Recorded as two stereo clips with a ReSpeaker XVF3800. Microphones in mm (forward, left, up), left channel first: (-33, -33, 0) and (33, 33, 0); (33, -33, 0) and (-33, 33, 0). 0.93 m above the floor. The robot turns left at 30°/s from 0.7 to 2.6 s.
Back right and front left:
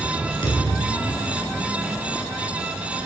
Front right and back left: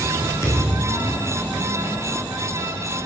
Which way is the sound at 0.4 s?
105° right.